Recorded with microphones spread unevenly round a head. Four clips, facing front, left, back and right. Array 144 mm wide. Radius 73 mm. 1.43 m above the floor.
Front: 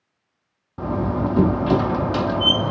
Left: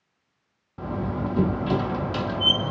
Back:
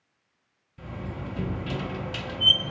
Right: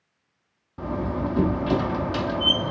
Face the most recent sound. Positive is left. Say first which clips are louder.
# right 1 dB, front 15 dB
turn(degrees=0)